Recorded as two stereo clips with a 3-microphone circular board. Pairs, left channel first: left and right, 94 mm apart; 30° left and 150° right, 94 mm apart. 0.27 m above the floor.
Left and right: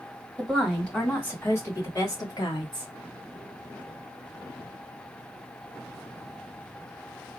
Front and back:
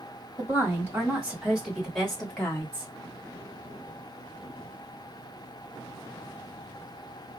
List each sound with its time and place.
0.4 s a woman speaking: 175° left, 1.6 m; by 2.9 s 100° left, 1.9 m